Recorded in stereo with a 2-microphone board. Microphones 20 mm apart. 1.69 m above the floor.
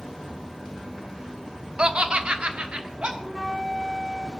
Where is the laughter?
50° right (ahead or behind), 0.6 m; by 3.1 s 65° right (ahead or behind), 1.8 m.